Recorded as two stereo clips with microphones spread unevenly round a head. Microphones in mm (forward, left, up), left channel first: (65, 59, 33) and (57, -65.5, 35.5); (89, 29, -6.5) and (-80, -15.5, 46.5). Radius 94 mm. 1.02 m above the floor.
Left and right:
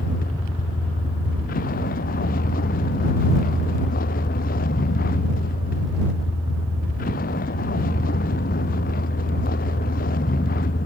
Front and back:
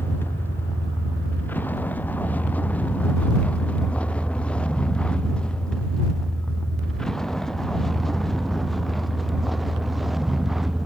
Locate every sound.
0.0 s a vehicle: 95° left; by 10.9 s 105° left